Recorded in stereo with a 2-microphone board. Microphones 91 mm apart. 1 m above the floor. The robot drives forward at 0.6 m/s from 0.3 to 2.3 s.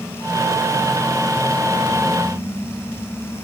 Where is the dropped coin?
I don't hear a dropped coin.